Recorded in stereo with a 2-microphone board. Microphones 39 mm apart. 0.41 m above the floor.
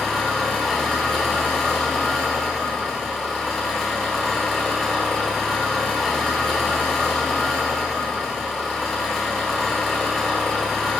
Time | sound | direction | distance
0.0 | an engine running | centre (ahead or behind) | 0.9 m